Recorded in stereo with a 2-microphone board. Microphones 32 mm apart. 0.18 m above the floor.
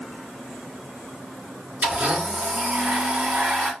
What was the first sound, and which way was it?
A blender, 45° right (ahead or behind).